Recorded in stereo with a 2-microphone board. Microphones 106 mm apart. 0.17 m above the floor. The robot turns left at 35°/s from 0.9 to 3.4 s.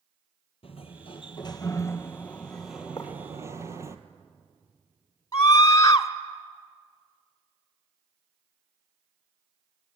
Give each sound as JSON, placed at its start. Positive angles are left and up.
{"t": 0.6, "sound": "a sliding door", "azimuth_deg": 60, "distance_m": 1.5}
{"t": 3.0, "sound": "writing", "side_deg": 30, "distance_m": 8.5}
{"t": 5.3, "sound": "a scream", "side_deg": 30, "distance_m": 1.6}